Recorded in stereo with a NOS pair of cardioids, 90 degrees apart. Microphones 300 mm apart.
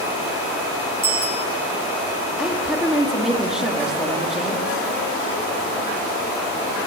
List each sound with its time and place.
1.0 s a bicycle bell: 10° right, 7 m
2.4 s a woman speaking: straight ahead, 3 m